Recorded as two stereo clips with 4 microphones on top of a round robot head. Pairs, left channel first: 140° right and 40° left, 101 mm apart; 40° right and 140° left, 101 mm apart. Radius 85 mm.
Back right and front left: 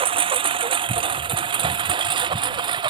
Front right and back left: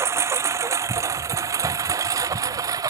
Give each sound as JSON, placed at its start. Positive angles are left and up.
{"t": 0.0, "sound": "a lawn mower", "azimuth_deg": 75}